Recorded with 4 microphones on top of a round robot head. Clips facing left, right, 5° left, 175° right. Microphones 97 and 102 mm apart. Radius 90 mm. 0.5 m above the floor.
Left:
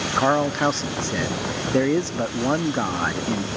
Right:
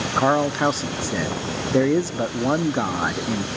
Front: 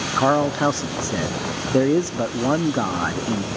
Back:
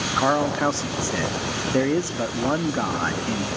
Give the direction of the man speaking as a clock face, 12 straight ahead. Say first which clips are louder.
Right 1 dB, front 3 dB; 1 o'clock.